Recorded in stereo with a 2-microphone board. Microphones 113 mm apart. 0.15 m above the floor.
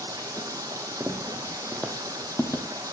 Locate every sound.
0.0 s running water: 30° right (ahead or behind), 0.9 m
1.0 s footsteps: 15° right (ahead or behind), 1.5 m; by 2.6 s 20° left (ahead or behind), 1.6 m